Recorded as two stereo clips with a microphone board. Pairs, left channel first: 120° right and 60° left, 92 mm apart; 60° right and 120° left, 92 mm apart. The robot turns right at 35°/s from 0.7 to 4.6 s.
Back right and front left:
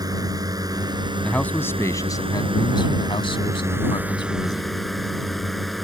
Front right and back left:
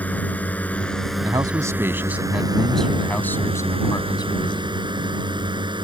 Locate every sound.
0.0 s a drone: 15° left; by 5.8 s 150° left
1.2 s a man speaking: 160° left; by 4.8 s 80° right